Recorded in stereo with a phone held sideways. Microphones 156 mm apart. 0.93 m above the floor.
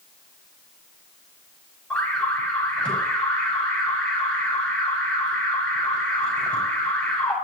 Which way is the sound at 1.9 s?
10° left (ahead or behind).